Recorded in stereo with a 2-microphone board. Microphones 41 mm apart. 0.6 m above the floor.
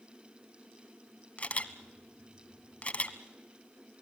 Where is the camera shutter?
35° left (ahead or behind), 1.3 m.